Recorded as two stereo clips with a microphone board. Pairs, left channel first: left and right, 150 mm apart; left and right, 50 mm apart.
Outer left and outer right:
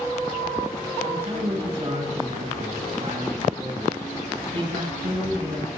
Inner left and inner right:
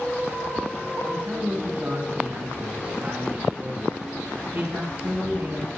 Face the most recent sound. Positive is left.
turn(degrees=-40)  # may be behind; listen again after turning